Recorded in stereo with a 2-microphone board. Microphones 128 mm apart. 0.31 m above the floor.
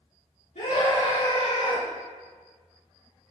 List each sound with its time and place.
0.6 s a scream: 65° left (ahead or behind), 4 m